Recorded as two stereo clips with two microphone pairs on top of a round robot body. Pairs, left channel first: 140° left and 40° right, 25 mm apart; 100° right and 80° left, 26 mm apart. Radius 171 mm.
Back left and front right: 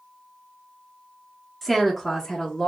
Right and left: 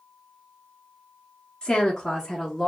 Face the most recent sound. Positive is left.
turn(degrees=170)